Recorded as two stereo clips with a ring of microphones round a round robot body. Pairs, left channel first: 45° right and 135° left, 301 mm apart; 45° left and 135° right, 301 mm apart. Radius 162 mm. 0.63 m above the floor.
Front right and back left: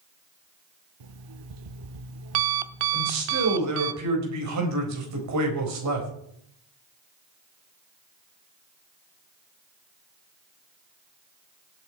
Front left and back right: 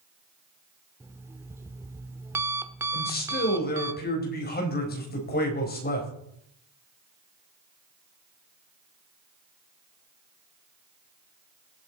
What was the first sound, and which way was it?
An alarm clock, 145° left.